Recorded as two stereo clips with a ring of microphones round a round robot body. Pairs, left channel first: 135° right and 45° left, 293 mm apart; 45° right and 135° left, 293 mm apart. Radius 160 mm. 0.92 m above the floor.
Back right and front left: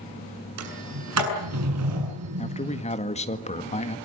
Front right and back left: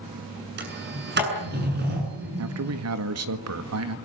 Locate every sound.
0.6 s a sliding door: 80° left, 7.5 m
2.4 s a man speaking: 160° left, 1.9 m